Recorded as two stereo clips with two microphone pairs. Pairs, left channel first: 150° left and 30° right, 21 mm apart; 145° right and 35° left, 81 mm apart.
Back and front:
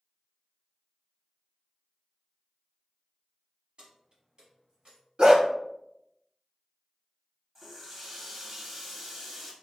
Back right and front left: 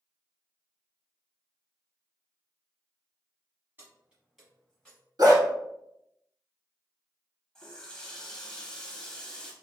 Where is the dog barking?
10° left, 0.8 m.